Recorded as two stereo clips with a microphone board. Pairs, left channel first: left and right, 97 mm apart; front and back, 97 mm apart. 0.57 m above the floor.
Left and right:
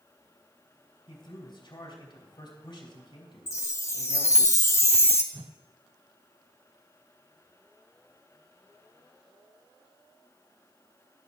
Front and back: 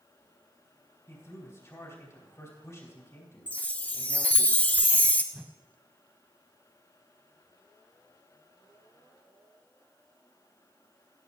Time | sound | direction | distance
1.1 | a man speaking | 60° left | 3 m
3.5 | a chime | 60° left | 0.8 m
5.3 | a whoosh | 95° right | 0.6 m